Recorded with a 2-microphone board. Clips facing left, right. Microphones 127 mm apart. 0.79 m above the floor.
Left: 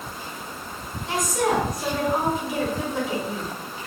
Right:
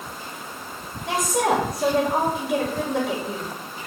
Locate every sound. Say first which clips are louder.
1.1 s a woman speaking: right 2 dB; 75° right (ahead or behind), 3.5 m